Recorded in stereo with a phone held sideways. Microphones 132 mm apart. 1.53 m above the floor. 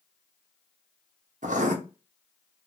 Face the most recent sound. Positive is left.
turn(degrees=-70)  # may be behind; listen again after turning